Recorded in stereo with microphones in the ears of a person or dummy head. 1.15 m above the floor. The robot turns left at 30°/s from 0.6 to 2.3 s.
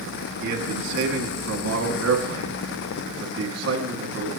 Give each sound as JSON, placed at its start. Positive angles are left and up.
{"t": 0.4, "sound": "a man speaking", "azimuth_deg": -45, "distance_m": 2.0}